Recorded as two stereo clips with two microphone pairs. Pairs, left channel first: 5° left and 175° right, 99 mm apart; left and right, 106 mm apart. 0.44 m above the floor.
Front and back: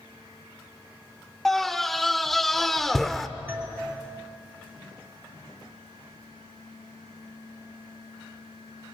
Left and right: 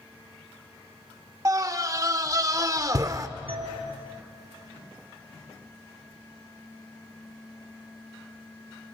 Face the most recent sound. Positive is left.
turn(degrees=-110)